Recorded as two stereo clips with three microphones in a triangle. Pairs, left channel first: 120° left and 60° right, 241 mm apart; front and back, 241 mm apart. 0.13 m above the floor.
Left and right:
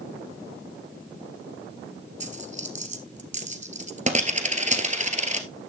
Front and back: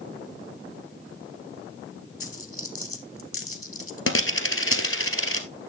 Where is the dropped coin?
5° right, 1.4 m.